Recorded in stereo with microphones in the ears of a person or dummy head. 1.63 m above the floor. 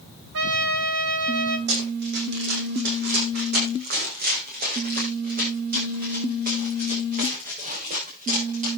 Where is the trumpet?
70° right (ahead or behind), 3 m.